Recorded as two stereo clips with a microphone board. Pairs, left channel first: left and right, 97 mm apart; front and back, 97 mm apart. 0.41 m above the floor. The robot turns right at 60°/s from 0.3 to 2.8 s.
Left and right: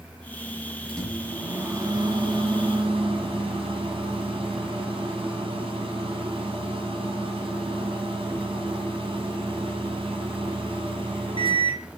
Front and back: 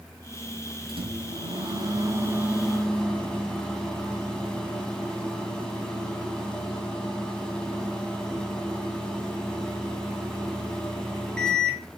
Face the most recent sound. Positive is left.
turn(degrees=-80)